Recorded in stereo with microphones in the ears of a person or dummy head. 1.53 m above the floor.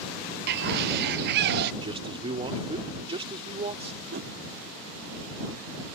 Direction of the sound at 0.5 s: 55° right (ahead or behind).